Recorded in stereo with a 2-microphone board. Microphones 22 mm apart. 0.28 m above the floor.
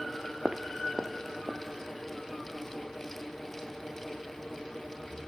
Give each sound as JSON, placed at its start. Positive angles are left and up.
{"t": 0.5, "sound": "footsteps", "side_deg": -25, "distance_m": 1.4}